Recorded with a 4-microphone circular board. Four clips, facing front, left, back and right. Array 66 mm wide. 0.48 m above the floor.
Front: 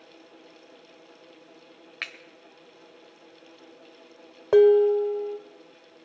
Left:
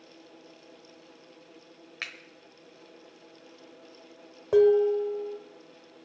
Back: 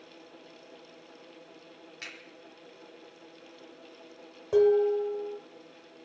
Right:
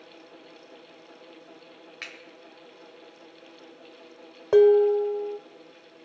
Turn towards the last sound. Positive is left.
turn(degrees=-25)